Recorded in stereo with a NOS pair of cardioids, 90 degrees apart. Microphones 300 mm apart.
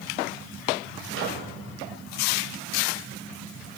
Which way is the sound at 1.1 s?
45° right.